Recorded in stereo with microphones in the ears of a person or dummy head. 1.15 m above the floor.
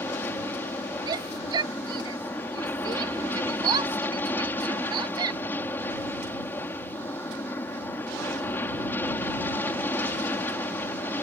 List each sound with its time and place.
0.0 s an aircraft: 15° left (ahead or behind)
1.1 s a shout: 20° right (ahead or behind)